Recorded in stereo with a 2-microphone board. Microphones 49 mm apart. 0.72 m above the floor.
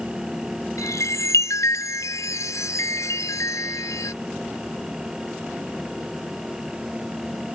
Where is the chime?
85° left.